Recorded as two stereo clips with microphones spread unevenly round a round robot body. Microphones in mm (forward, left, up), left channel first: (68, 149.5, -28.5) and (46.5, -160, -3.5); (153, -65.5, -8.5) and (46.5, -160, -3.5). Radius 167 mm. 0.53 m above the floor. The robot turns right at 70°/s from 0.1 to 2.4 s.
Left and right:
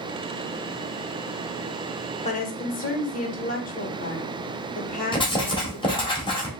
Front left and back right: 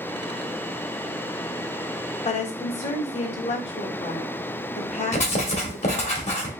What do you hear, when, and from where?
2.2 s a woman speaking: 25° left, 1.5 m; by 6.1 s 35° left, 1.5 m
5.1 s writing: 15° left, 1.9 m